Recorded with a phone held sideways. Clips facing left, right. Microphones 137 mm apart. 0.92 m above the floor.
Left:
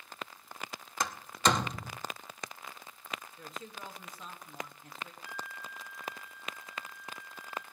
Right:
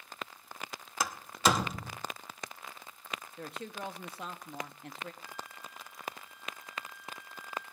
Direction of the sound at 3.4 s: 70° right (ahead or behind).